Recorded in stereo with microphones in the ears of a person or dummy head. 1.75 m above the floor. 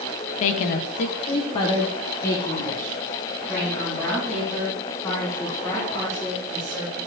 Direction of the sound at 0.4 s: 40° left (ahead or behind).